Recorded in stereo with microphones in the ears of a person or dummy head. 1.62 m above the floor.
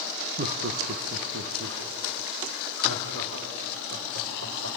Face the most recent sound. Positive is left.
turn(degrees=-85)